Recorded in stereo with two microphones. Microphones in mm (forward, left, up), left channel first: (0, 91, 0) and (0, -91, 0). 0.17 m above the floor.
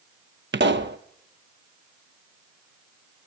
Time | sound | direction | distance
0.5 | a pop | 80° right | 0.9 m